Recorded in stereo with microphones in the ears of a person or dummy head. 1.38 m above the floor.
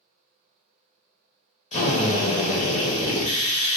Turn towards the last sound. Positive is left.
turn(degrees=35)  # may be behind; listen again after turning